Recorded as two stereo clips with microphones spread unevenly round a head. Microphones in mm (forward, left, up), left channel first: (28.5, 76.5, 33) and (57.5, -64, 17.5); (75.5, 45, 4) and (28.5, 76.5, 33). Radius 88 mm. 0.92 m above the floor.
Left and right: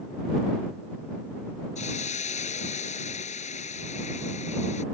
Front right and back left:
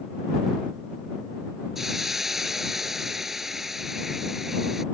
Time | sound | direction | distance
1.8 | a hiss | 65° left | ?